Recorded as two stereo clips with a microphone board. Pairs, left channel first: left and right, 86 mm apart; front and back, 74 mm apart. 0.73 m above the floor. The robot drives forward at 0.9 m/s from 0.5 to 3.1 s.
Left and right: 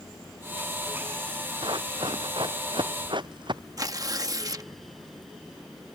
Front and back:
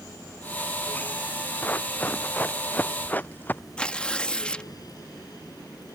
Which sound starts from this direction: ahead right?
Running footsteps, at 1.6 s.